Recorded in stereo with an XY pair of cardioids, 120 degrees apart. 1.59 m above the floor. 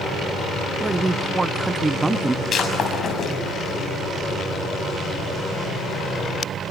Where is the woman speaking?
20° right, 0.9 m.